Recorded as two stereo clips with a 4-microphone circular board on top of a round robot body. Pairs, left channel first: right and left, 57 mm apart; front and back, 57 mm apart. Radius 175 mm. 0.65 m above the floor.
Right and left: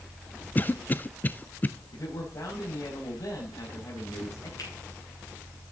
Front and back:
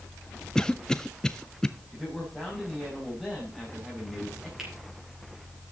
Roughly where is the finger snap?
Right.